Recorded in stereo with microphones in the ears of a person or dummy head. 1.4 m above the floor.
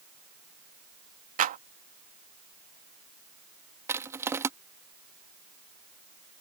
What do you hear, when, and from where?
1.4 s a clap: 35° right (ahead or behind)
3.9 s crushing: 10° right (ahead or behind)